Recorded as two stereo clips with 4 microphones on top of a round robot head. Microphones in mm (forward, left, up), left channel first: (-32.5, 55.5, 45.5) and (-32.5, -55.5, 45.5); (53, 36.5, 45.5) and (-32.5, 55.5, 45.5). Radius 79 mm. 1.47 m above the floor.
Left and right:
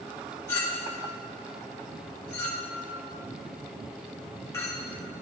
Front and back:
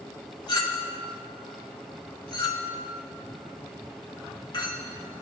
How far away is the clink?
About 2.0 m.